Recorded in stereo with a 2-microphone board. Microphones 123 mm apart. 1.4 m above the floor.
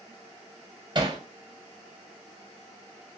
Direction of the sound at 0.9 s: 40° right (ahead or behind).